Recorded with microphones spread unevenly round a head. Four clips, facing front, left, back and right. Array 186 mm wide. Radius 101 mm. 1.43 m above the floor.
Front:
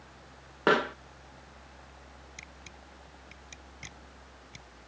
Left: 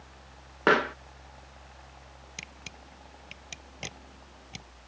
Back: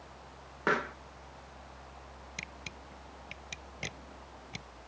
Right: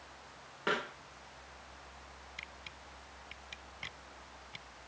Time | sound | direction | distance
0.7 | a pop | 50° left | ?
2.4 | a camera shutter | 135° left | ?